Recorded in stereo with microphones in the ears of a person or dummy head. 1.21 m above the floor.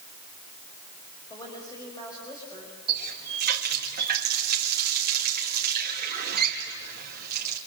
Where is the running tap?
50° right (ahead or behind), 2 m.